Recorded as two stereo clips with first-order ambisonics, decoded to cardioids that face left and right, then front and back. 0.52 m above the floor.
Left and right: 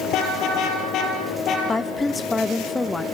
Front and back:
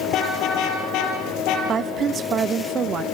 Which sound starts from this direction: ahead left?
A car horn, at 0.1 s.